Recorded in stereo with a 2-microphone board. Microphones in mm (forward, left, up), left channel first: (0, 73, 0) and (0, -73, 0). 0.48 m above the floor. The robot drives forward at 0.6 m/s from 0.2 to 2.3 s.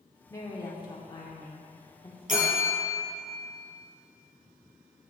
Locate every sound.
0.3 s a woman speaking: 25° left (ahead or behind), 1.1 m
2.3 s a bell: 65° right (ahead or behind), 2.5 m